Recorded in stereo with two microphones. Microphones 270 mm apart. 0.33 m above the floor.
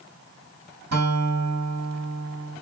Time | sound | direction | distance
0.9 | a guitar | 65° right (ahead or behind) | 2.5 m